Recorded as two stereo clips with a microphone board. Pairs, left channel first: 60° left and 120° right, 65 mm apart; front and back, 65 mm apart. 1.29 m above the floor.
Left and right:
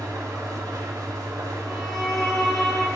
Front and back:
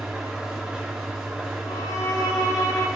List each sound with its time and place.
0.0 s an engine running: 100° right, 5 m
1.6 s a violin: 25° right, 4 m